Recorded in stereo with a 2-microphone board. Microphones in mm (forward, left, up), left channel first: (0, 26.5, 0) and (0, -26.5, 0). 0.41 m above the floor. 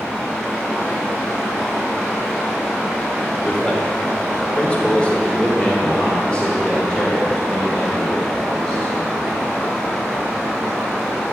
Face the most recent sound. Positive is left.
turn(degrees=10)  # may be behind; listen again after turning